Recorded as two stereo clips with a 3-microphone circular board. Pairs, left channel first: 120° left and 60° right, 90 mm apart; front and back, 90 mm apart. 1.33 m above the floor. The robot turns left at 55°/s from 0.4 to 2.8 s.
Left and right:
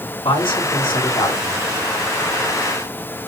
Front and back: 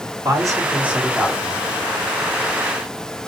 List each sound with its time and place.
0.2 s a man speaking: 130° left, 4 m; by 1.6 s 60° left, 4 m